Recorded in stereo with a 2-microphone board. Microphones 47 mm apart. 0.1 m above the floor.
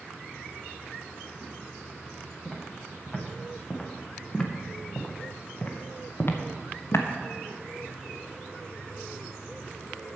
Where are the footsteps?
Centre (ahead or behind), 2.5 m; by 7.1 s 65° left (ahead or behind), 1.4 m.